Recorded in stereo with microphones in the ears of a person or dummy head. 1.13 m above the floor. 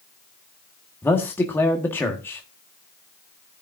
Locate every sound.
1.0 s a man speaking: 10° left (ahead or behind), 1.6 m